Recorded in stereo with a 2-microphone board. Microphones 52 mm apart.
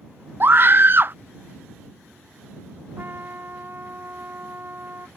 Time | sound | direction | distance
0.4 | a scream | 45° right (ahead or behind) | ?
3.0 | a trumpet | 45° right (ahead or behind) | ?